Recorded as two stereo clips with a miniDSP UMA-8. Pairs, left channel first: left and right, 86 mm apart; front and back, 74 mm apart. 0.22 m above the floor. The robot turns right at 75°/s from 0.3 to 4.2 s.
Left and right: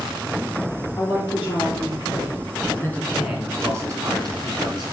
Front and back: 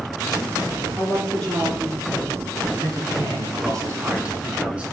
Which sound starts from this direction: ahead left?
A woman speaking, at 0.9 s.